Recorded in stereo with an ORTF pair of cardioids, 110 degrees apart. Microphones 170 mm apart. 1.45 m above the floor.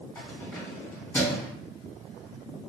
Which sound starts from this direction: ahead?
Keys jangling, at 0.1 s.